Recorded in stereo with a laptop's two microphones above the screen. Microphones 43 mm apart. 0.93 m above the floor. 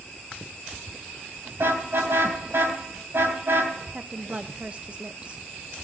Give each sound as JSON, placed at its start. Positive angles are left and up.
{"t": 1.6, "sound": "a car horn", "side_deg": -65, "distance_m": 3.0}
{"t": 3.9, "sound": "a woman speaking", "side_deg": -30, "distance_m": 0.5}